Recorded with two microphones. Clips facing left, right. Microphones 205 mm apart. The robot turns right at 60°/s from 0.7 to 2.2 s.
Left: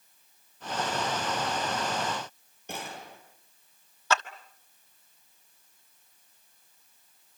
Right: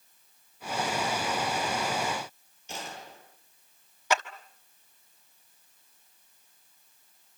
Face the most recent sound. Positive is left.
turn(degrees=-15)  # may be behind; listen again after turning